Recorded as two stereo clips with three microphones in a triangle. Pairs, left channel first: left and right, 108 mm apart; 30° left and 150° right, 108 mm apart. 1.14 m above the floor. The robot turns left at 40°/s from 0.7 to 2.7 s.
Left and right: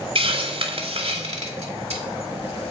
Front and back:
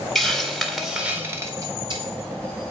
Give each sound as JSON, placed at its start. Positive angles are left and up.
{"t": 0.1, "sound": "a hiss", "azimuth_deg": -60, "distance_m": 2.0}